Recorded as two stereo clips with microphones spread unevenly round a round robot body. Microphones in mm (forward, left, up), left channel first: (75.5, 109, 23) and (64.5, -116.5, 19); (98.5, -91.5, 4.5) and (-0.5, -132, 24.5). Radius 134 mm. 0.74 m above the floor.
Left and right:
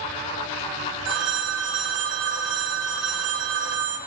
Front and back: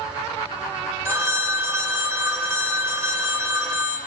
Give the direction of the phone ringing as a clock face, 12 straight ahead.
3 o'clock.